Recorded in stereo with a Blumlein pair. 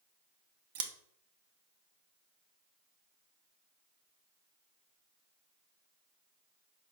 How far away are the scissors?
About 0.6 m.